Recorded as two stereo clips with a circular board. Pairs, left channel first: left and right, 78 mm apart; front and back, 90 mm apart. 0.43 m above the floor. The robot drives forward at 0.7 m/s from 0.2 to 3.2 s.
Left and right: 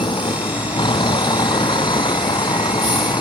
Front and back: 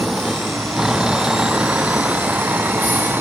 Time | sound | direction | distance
0.0 | a vehicle | 95° left | ?